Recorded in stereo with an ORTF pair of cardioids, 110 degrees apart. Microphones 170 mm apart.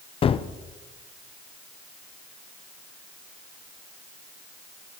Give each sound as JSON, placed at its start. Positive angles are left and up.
{"t": 0.2, "sound": "a gunshot", "azimuth_deg": 35, "distance_m": 0.5}